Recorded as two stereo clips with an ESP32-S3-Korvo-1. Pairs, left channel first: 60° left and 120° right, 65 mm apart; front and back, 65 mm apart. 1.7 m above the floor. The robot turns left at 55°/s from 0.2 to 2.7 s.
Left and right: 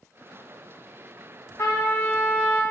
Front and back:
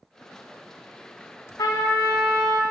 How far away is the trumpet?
About 0.7 m.